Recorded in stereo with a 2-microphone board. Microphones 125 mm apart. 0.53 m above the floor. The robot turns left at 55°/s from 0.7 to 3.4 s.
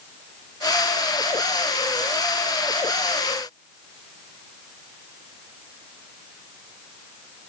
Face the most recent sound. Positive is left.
No sound to turn to.